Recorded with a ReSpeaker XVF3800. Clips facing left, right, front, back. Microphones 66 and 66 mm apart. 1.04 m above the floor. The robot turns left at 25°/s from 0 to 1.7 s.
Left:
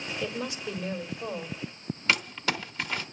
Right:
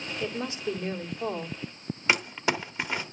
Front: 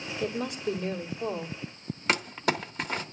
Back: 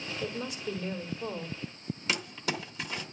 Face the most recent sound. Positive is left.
turn(degrees=-25)